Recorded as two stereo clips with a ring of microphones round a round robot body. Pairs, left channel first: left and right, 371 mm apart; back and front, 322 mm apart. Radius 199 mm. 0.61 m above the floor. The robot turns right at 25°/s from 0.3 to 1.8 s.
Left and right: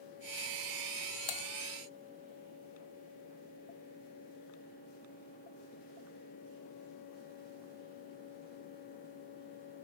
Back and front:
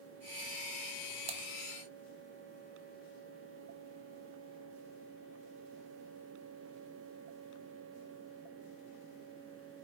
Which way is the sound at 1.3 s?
70° left.